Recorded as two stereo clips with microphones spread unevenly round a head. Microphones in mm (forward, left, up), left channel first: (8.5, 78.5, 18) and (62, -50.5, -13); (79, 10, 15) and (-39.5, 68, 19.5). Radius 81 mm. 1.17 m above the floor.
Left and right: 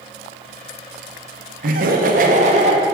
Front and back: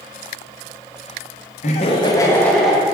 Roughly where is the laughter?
Ahead right.